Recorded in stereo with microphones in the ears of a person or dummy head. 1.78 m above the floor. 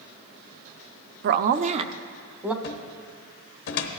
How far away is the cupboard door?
About 0.9 m.